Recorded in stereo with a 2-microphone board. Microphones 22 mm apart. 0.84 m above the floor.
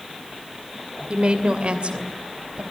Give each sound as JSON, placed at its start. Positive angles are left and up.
{"t": 1.1, "sound": "a woman speaking", "side_deg": -55, "distance_m": 2.5}